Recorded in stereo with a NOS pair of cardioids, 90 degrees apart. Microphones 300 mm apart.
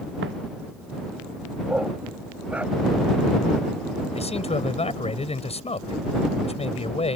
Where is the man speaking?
20° left.